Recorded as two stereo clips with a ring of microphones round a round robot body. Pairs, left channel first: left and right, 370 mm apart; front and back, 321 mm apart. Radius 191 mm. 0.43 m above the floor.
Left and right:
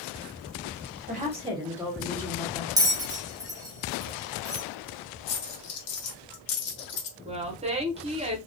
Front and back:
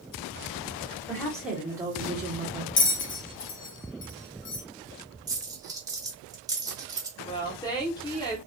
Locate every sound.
1.1 s a woman speaking: 70° right, 0.9 m; by 2.7 s 155° left, 1.0 m
2.8 s a bell: 15° right, 0.6 m
5.3 s a dropped coin: 100° left, 1.0 m
7.2 s a woman speaking: 55° right, 0.7 m